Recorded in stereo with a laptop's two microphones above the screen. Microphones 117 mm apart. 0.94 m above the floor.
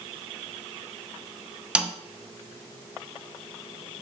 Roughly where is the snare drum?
Centre.